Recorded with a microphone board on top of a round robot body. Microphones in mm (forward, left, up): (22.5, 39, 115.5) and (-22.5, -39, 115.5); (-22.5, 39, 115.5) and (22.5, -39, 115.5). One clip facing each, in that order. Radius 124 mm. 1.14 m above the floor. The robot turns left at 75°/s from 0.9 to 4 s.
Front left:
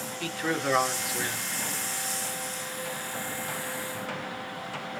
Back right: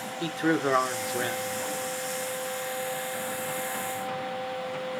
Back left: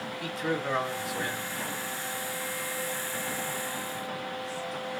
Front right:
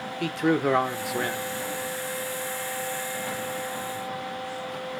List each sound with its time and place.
0.2 s a man speaking: 55° right, 1.0 m; by 1.6 s 110° right, 1.0 m